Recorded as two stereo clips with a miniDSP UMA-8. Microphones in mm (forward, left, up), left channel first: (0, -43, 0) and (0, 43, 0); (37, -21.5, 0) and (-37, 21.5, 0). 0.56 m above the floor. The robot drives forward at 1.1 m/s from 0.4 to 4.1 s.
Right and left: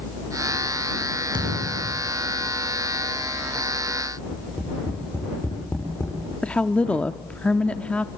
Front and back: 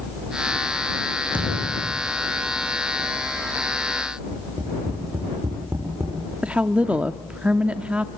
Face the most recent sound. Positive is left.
turn(degrees=-150)